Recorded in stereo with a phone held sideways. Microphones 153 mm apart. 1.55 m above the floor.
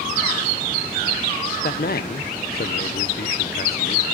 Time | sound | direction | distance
1.6 | a man speaking | 75° left (ahead or behind) | 0.8 m